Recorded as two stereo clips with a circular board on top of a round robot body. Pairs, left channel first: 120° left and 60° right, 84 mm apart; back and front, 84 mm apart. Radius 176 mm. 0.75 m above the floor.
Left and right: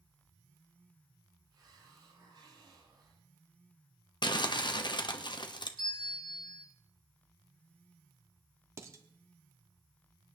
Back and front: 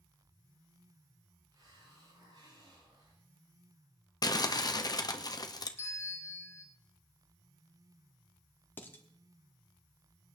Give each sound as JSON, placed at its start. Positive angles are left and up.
{"t": 1.5, "sound": "a hiss", "azimuth_deg": -35, "distance_m": 6.5}
{"t": 4.2, "sound": "crumpling", "azimuth_deg": 145, "distance_m": 1.1}
{"t": 5.8, "sound": "a bell", "azimuth_deg": 120, "distance_m": 4.0}
{"t": 8.8, "sound": "dishes clattering", "azimuth_deg": -115, "distance_m": 1.4}